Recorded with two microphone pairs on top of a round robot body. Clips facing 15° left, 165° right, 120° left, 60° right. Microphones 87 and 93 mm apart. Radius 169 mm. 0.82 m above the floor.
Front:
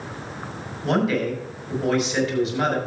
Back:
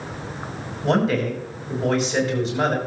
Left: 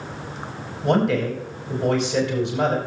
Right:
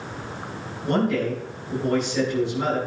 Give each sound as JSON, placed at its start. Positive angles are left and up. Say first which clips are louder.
{"t": 0.8, "sound": "a man speaking", "louder": "back 1 dB, left 3 dB", "azimuth_deg": 140, "distance_m": 5.5}